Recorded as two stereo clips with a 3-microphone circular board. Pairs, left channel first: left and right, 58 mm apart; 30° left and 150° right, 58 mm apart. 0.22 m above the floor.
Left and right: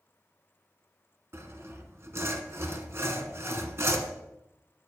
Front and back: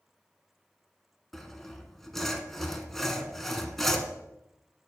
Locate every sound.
1.3 s sawing: 55° right, 1.0 m